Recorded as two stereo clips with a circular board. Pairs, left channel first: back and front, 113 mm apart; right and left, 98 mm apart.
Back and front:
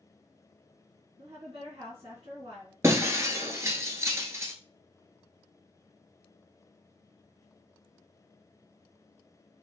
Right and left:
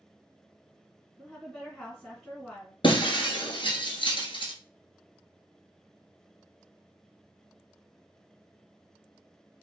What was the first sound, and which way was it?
A woman speaking, 10° right.